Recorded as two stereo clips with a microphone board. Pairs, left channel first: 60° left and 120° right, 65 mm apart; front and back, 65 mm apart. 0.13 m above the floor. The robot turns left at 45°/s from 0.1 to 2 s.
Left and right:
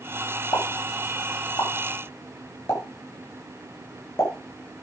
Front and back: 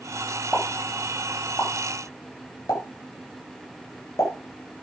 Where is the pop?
80° left, 9.5 m; by 4.8 s 15° left, 9.5 m.